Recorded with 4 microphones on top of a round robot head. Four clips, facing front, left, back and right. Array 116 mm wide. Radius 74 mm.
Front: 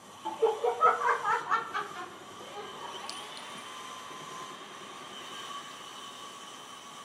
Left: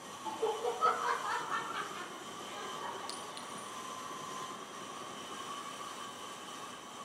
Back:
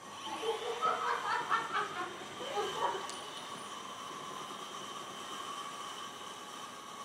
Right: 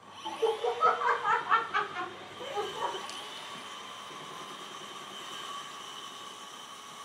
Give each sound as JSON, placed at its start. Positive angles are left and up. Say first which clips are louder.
{"t": 0.2, "sound": "laughter", "louder": "right 5 dB, front 9 dB", "azimuth_deg": -15, "distance_m": 1.9}
{"t": 3.1, "sound": "a clink", "louder": "right 1 dB, front 1 dB", "azimuth_deg": 70, "distance_m": 1.7}